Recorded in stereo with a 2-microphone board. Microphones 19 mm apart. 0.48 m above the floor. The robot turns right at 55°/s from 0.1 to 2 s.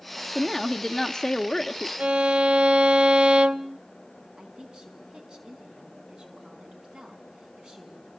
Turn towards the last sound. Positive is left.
turn(degrees=-45)  # may be behind; listen again after turning